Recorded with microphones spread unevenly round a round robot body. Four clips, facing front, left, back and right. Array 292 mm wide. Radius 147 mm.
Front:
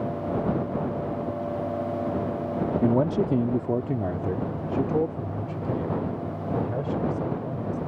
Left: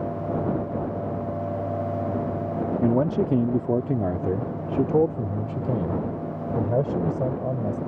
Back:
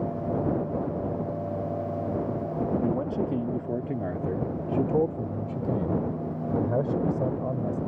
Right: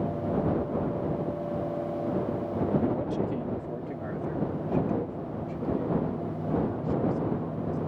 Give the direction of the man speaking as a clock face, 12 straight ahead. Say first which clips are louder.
Left 6 dB, front 5 dB; 10 o'clock.